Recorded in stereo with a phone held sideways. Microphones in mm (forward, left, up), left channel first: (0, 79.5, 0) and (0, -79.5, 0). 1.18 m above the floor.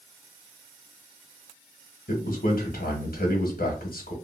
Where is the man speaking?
65° left (ahead or behind), 1.3 m.